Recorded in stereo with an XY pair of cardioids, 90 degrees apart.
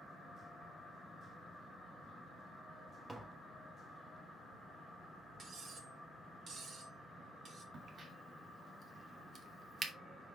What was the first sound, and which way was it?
Tapping, 30° right.